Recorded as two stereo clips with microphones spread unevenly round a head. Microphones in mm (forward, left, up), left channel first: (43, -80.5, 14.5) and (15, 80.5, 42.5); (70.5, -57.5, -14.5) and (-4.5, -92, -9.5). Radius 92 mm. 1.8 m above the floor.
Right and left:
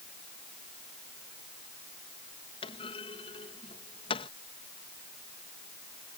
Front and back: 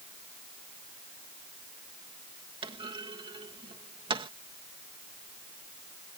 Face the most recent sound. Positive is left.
turn(degrees=-145)